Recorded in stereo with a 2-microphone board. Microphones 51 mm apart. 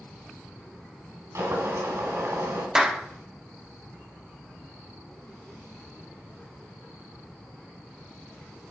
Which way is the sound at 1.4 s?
65° right (ahead or behind).